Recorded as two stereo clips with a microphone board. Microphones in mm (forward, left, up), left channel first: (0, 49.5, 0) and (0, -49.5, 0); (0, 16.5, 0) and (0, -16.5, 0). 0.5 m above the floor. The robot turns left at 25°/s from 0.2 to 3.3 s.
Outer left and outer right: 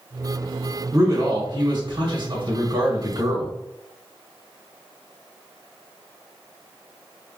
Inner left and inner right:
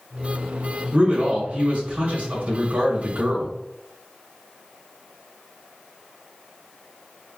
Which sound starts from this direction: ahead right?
A man speaking, at 0.9 s.